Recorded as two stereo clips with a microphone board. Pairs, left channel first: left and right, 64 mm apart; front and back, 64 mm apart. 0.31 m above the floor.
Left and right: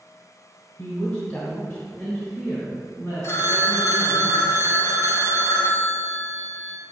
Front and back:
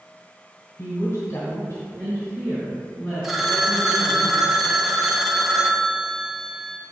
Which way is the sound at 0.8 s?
25° left.